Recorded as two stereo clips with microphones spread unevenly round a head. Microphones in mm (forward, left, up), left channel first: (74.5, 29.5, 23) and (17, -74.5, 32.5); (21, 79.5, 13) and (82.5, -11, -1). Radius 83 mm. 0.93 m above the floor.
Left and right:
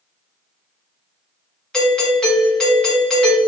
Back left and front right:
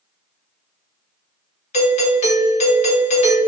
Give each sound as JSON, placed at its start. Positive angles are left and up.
{"t": 1.7, "sound": "a doorbell", "azimuth_deg": 140, "distance_m": 1.7}